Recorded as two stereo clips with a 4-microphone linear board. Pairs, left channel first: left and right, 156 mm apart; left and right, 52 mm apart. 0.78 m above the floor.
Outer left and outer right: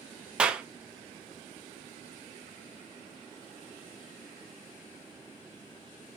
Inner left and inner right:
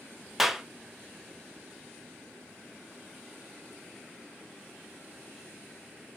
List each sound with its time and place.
0.4 s a clap: 5° right (ahead or behind), 0.7 m